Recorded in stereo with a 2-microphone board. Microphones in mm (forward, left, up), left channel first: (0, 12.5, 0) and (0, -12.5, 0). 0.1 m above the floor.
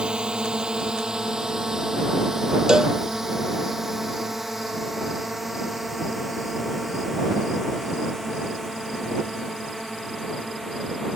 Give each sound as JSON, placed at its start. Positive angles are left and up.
{"t": 0.0, "sound": "a drone", "side_deg": -35}
{"t": 2.7, "sound": "a cowbell", "side_deg": -25}